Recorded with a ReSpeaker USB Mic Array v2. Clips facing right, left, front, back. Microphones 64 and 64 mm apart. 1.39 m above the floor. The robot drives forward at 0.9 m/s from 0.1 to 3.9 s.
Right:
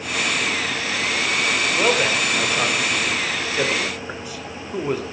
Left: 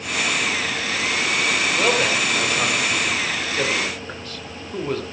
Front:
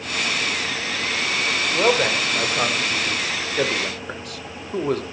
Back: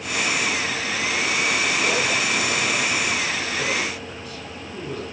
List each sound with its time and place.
1.7 s a man speaking: 10° right, 5 m